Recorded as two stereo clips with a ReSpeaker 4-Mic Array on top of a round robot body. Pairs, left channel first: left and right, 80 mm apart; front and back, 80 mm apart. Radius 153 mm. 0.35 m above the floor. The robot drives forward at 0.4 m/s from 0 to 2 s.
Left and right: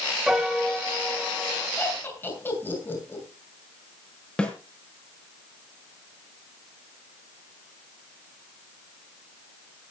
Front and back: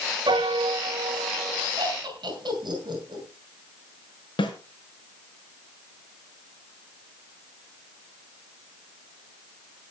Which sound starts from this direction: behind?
A piano, at 0.3 s.